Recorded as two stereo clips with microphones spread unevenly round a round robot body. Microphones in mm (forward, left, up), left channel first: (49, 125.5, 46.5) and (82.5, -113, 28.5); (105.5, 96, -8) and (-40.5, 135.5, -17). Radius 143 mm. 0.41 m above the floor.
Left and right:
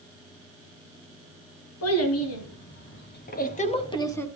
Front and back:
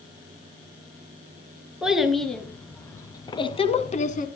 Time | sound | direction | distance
1.8 | a child speaking | 80° left | 4 m